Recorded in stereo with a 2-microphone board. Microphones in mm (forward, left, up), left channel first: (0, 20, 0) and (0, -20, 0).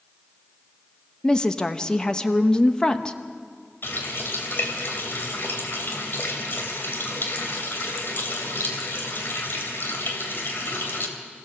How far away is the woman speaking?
About 0.9 m.